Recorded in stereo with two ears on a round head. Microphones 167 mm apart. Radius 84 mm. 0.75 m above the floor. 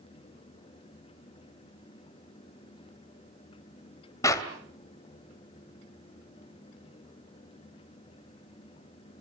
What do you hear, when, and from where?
4.2 s a clap: 20° left (ahead or behind), 2.5 m